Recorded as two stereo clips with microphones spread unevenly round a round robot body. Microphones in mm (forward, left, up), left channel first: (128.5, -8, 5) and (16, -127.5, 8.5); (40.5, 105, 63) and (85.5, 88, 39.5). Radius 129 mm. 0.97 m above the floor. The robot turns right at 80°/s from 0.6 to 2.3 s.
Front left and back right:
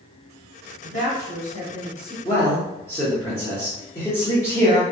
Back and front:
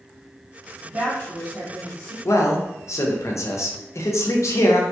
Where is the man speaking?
120° left, 0.7 m; by 4.8 s 125° left, 0.7 m.